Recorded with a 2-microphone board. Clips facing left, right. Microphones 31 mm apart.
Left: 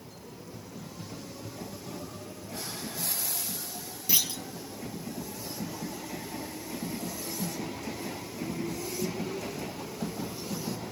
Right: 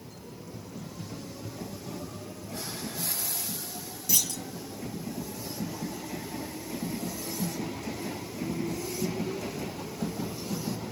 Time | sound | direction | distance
4.1 | a clunk | 20° left (ahead or behind) | 0.7 m